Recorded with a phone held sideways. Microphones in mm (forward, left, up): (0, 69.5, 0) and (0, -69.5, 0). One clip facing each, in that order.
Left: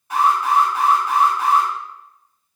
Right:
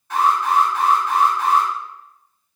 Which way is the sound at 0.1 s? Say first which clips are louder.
Even; 15° left (ahead or behind).